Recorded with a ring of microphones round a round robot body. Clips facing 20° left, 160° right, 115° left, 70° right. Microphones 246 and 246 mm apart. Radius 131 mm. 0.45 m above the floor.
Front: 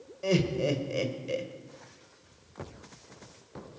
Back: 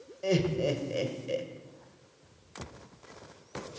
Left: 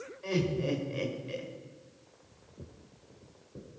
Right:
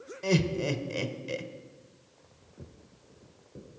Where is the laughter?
65° right, 1.6 m.